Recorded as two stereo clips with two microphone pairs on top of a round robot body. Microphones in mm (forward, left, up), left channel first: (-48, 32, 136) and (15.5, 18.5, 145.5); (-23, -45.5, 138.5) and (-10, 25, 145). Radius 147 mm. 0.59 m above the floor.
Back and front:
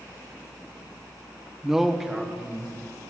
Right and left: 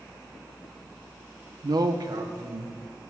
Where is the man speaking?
80° left, 0.8 m; by 2.8 s 70° left, 2 m.